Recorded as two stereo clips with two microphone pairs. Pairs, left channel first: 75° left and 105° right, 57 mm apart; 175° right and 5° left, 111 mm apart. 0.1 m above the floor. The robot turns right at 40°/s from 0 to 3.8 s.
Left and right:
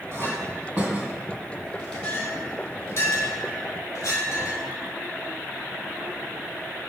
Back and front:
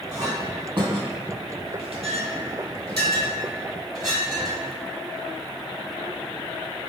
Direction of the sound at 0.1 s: 60° right.